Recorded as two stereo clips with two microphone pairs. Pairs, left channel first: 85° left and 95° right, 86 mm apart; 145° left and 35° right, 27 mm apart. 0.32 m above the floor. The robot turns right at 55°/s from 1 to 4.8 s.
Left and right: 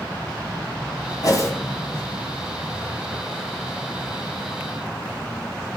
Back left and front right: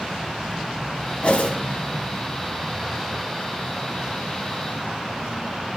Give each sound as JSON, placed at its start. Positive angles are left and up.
{"t": 1.2, "sound": "a whoosh", "azimuth_deg": 125, "distance_m": 1.6}